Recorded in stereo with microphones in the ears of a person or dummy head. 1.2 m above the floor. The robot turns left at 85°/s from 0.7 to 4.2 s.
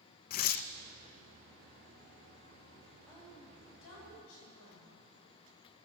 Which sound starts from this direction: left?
Tearing paper, at 0.3 s.